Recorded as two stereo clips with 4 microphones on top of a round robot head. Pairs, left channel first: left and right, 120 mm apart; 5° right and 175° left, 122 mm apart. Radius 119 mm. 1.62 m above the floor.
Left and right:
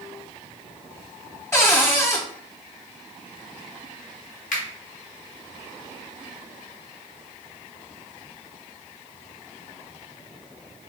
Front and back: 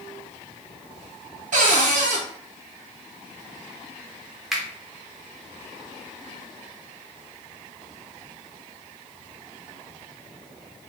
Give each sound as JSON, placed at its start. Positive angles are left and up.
{"t": 1.5, "sound": "a cupboard door", "azimuth_deg": 160, "distance_m": 0.7}
{"t": 4.5, "sound": "a finger snap", "azimuth_deg": 85, "distance_m": 0.8}